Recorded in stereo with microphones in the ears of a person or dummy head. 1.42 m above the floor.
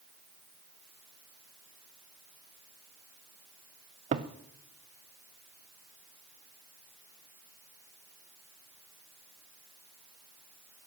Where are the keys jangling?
I don't hear keys jangling.